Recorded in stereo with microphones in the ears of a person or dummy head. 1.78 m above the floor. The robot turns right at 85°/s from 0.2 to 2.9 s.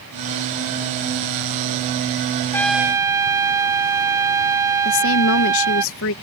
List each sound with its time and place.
2.5 s a trumpet: 170° left; by 5.8 s 160° right
4.8 s a woman speaking: 65° left (ahead or behind)